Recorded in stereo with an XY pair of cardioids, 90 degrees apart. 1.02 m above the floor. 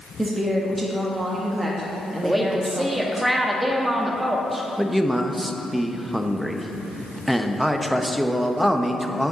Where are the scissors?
I don't hear scissors.